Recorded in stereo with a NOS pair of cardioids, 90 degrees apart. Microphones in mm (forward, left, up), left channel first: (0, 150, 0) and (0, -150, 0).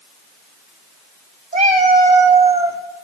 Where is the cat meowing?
25° right, 2.5 m; by 2.8 s 15° right, 2.5 m.